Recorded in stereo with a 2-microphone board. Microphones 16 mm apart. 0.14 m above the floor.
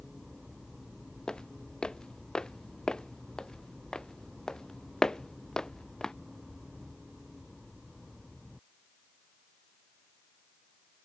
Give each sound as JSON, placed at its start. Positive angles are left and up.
{"t": 1.3, "sound": "footsteps", "side_deg": 60}